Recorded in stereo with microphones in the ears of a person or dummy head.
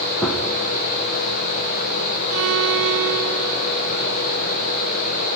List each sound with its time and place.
0.2 s a gunshot: 10° left (ahead or behind), 1.0 m
2.3 s a violin: 70° right (ahead or behind), 1.1 m